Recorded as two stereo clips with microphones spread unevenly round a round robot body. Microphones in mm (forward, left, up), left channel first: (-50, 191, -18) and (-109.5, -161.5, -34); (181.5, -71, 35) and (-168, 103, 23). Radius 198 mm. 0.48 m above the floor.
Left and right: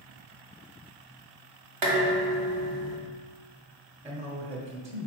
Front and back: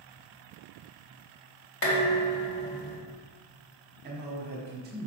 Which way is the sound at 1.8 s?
85° right.